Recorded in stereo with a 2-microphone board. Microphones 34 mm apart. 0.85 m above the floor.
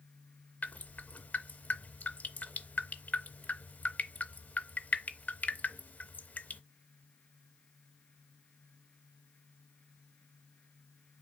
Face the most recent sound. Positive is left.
turn(degrees=45)  # may be behind; listen again after turning